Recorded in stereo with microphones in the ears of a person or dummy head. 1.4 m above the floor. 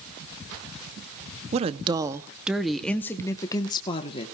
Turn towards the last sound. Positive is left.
turn(degrees=30)  # may be behind; listen again after turning